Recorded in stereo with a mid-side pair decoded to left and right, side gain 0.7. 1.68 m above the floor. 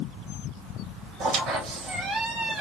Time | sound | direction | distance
1.2 | a squeak | 45° right | 3 m